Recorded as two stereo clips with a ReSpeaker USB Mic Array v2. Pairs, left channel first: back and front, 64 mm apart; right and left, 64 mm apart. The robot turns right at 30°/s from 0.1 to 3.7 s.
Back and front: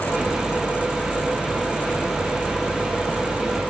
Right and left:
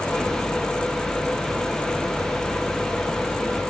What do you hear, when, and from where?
Only background noise.